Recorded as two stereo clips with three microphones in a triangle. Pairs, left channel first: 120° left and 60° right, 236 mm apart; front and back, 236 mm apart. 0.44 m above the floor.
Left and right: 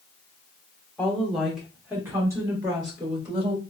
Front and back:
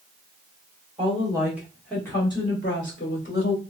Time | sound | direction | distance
1.0 | a woman speaking | 160° right | 1.1 m